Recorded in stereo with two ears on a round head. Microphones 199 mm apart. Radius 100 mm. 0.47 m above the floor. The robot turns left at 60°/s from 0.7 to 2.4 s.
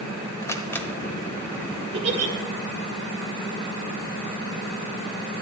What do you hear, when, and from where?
0.4 s a camera shutter: 15° left (ahead or behind), 1.3 m; by 0.9 s 5° left (ahead or behind), 1.3 m
1.9 s a giggle: 25° right (ahead or behind), 2 m; by 2.3 s 40° right (ahead or behind), 2 m